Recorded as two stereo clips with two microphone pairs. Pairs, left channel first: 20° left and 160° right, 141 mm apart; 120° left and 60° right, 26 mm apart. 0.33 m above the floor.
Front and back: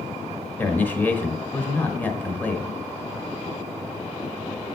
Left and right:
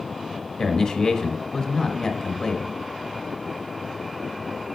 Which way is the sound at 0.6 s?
90° left.